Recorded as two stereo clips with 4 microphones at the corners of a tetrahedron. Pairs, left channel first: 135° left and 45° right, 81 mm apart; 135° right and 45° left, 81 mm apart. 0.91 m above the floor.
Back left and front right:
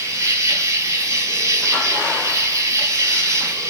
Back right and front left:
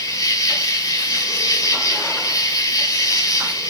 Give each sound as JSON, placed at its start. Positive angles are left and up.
{"t": 0.0, "sound": "an insect", "azimuth_deg": -95, "distance_m": 2.0}